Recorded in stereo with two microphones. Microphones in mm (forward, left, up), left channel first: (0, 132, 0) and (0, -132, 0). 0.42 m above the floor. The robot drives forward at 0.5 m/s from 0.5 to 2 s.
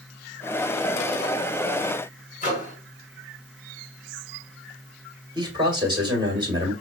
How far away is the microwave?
About 1.6 m.